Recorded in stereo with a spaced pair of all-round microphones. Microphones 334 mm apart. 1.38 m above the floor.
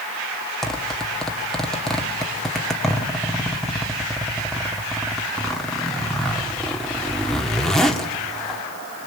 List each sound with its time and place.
0.6 s a zipper: centre (ahead or behind), 2 m